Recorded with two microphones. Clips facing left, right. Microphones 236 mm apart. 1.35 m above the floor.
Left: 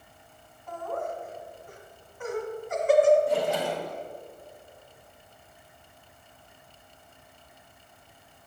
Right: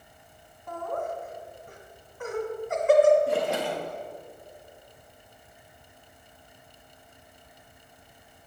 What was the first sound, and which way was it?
Laughter, 60° right (ahead or behind).